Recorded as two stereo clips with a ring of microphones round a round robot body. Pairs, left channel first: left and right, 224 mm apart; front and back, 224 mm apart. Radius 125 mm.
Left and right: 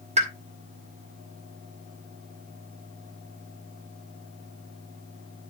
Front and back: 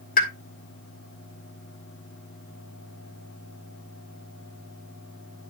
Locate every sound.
0.2 s a pop: 40° right, 1.9 m